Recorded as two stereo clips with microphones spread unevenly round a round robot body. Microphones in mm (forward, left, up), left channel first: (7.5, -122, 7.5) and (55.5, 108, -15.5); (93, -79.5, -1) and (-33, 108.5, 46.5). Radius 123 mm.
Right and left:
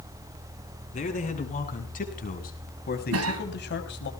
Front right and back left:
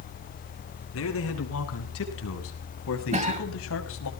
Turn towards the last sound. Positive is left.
turn(degrees=60)